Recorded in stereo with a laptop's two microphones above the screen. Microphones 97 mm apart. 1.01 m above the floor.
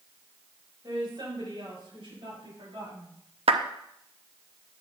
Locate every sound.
0.8 s a woman speaking: 50° right (ahead or behind), 5.5 m; by 3.1 s 70° right (ahead or behind), 7 m
3.5 s a clap: 85° right, 0.7 m